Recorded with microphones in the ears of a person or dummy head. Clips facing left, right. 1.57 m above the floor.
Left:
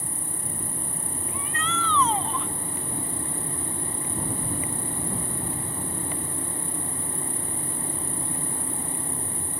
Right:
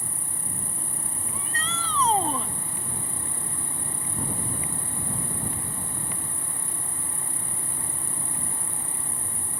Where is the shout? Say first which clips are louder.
Left 5 dB; 30° right (ahead or behind).